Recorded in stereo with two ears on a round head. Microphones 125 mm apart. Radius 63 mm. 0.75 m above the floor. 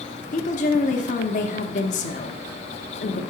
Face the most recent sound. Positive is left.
turn(degrees=60)  # may be behind; listen again after turning